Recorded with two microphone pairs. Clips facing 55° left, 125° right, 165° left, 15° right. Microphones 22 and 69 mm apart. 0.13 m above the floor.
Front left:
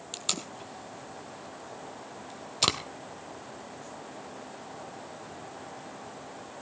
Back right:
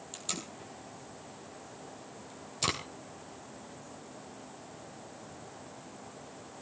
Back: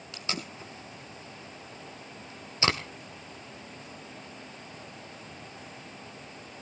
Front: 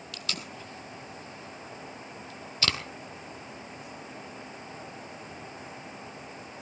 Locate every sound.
0.1 s tape being pulled: 100° left, 2.0 m